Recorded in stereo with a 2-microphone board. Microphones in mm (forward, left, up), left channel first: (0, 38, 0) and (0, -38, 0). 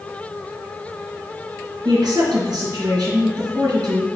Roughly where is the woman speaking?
Right.